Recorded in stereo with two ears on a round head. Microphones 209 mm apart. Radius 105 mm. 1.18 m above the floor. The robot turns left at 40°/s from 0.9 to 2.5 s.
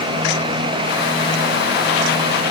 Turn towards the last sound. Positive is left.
No sound to turn to.